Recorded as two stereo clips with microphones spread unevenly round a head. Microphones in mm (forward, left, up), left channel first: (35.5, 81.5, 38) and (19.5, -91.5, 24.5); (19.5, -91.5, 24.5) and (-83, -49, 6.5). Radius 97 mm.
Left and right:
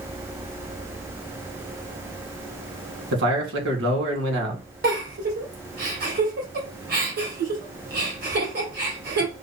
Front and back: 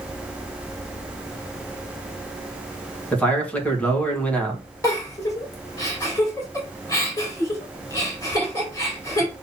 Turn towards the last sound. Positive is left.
turn(degrees=-75)